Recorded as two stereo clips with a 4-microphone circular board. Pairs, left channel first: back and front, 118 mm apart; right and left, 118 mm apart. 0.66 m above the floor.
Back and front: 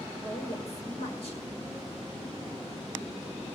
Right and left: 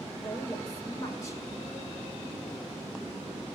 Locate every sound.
0.2 s a woman speaking: 150° right, 1.9 m